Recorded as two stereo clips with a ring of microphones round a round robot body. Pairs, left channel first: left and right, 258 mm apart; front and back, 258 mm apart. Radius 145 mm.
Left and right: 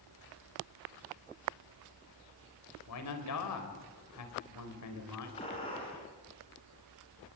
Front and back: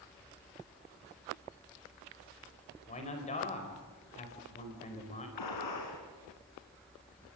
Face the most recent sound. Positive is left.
turn(degrees=15)